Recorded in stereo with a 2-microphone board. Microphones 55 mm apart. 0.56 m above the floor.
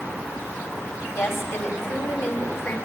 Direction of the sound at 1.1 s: 50° left (ahead or behind).